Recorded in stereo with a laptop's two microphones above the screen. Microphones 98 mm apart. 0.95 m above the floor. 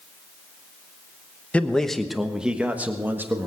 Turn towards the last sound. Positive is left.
turn(degrees=-25)  # may be behind; listen again after turning